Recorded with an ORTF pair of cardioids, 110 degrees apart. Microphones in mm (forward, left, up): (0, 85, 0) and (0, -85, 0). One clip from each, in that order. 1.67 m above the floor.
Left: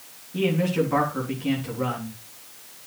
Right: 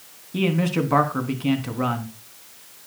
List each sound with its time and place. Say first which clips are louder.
0.3 s a man speaking: even; 45° right, 3.5 m